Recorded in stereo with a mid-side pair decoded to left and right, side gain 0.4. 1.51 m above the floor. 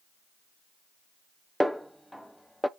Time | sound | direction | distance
1.6 | a snare drum | straight ahead | 0.5 m